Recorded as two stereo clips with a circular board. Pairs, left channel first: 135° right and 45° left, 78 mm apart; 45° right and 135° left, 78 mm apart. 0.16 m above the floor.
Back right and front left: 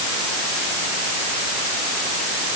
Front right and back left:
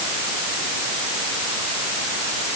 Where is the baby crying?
No baby crying in this recording.